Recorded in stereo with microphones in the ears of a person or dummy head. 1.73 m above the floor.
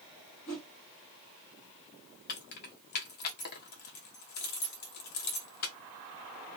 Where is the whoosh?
50° left (ahead or behind), 1.5 m.